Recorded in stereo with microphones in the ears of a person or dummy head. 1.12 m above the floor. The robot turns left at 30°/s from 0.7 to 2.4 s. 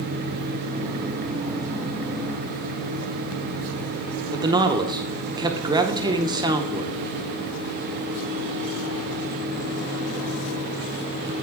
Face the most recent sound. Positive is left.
turn(degrees=-20)  # may be behind; listen again after turning